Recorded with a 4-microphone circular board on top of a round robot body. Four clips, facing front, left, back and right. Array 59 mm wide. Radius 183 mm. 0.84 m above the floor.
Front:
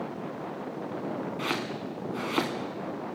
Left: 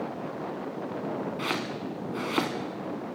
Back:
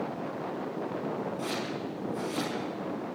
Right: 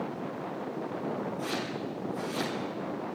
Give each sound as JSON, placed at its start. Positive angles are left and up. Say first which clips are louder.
{"t": 1.4, "sound": "chopping", "louder": "left 2 dB, front 2 dB", "azimuth_deg": 50, "distance_m": 1.8}